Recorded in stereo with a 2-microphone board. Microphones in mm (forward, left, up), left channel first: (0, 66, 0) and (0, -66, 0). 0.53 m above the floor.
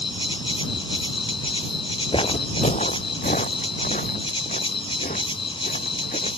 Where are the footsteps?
40° left (ahead or behind); by 6.3 s 85° left.